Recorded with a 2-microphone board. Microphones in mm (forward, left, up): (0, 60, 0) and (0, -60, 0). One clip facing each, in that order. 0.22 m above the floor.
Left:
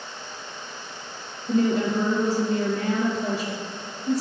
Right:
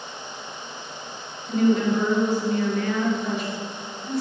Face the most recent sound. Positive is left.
turn(degrees=35)  # may be behind; listen again after turning